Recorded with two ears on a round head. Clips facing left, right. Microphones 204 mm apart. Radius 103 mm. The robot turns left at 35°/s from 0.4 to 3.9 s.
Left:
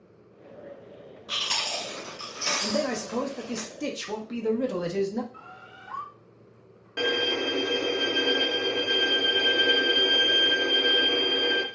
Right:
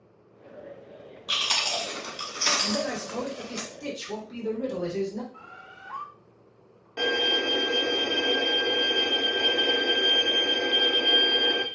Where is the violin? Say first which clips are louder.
Even; 20° left (ahead or behind), 0.6 m.